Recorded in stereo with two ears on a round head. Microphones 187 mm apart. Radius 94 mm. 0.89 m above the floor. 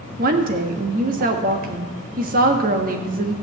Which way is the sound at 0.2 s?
40° right (ahead or behind).